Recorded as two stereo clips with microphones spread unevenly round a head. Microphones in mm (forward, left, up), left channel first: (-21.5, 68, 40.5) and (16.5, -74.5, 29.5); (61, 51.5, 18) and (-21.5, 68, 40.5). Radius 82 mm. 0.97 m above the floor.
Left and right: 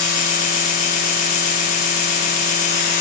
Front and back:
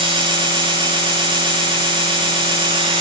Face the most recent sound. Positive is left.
turn(degrees=150)